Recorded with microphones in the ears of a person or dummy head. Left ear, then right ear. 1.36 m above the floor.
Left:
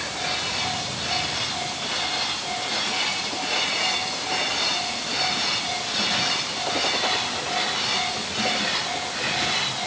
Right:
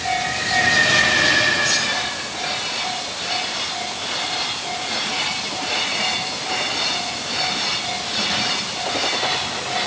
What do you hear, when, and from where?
Only background noise.